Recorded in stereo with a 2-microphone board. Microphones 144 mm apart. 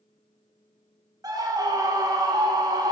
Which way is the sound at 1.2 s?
25° right (ahead or behind).